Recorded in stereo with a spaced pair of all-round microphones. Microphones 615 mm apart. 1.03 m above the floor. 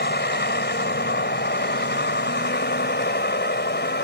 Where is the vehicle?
15° left (ahead or behind).